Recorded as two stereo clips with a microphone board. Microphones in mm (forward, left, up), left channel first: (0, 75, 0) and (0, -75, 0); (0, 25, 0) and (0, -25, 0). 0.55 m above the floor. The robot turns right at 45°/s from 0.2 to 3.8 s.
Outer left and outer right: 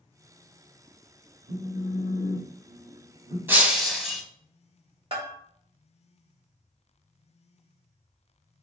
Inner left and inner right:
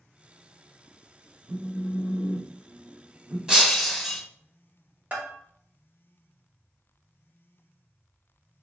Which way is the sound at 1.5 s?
125° right.